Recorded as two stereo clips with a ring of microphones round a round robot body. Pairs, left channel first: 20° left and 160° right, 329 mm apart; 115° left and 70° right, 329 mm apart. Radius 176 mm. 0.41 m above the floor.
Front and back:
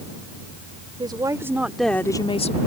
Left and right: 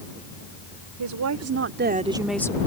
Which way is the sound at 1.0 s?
80° right.